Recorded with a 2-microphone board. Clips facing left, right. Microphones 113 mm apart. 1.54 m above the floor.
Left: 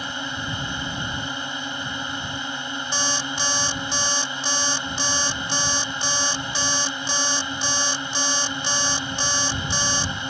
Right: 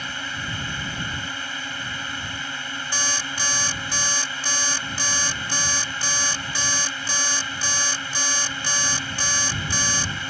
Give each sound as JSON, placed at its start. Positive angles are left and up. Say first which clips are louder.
{"t": 0.0, "sound": "a drone", "louder": "left 2 dB", "side_deg": 20}
{"t": 2.9, "sound": "an alarm clock", "louder": "left 2 dB", "side_deg": 20}